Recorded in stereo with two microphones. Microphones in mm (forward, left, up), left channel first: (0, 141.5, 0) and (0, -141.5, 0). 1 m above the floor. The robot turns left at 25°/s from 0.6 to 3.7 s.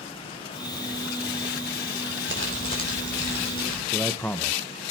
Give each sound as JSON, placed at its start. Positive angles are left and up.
{"t": 2.3, "sound": "crumpling", "azimuth_deg": -40, "distance_m": 4.0}
{"t": 3.9, "sound": "a man speaking", "side_deg": 5, "distance_m": 0.7}